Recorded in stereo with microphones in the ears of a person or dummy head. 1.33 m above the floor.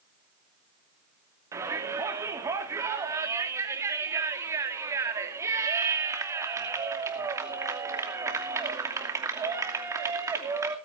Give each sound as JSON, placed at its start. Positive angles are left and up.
{"t": 1.5, "sound": "a shout", "side_deg": -20, "distance_m": 2.5}